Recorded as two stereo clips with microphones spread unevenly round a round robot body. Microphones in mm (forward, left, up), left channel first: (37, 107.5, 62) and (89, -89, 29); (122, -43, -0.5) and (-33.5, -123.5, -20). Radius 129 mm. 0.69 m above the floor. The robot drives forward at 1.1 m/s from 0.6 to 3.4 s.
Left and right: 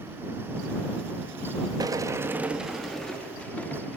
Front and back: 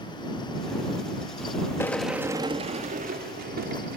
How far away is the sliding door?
About 1.0 m.